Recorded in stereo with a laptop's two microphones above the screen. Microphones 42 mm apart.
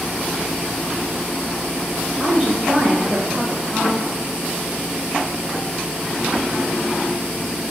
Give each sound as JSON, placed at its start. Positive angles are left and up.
{"t": 2.2, "sound": "a woman speaking", "side_deg": -25, "distance_m": 1.1}